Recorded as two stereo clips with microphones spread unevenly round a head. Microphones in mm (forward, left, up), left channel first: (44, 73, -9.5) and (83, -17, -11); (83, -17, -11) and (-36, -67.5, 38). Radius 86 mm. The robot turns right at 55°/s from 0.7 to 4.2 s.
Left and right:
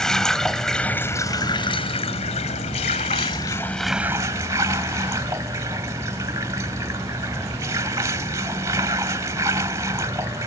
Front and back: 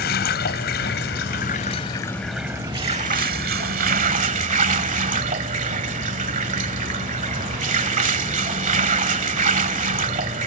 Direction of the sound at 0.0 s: 30° left.